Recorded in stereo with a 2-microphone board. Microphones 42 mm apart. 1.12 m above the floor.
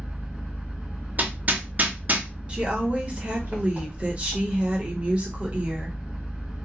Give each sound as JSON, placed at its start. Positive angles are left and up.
{"t": 0.0, "sound": "an engine running", "side_deg": -45, "distance_m": 1.7}
{"t": 1.2, "sound": "hammering", "side_deg": -45, "distance_m": 0.5}
{"t": 2.5, "sound": "a woman speaking", "side_deg": -30, "distance_m": 1.1}